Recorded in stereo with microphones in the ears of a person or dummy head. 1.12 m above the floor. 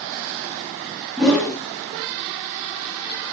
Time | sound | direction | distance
1.2 | a whoosh | centre (ahead or behind) | 0.9 m